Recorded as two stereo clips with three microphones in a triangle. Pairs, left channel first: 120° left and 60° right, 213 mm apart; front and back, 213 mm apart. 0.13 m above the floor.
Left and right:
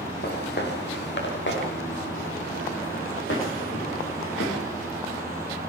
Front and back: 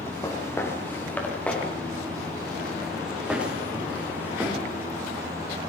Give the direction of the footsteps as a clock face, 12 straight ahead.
9 o'clock.